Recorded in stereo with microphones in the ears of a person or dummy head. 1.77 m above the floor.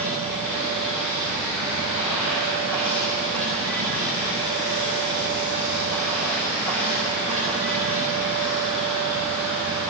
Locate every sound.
0.0 s running water: 5° left (ahead or behind), 9 m